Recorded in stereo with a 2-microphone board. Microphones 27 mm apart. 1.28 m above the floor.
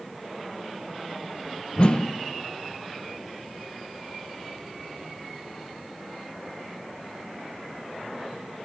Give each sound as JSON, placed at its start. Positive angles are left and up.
{"t": 1.8, "sound": "a whoosh", "side_deg": 40, "distance_m": 0.6}